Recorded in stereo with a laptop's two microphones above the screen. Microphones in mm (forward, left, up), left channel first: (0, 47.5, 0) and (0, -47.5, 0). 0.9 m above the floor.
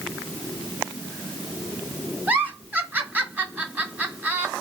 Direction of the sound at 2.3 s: 15° right (ahead or behind).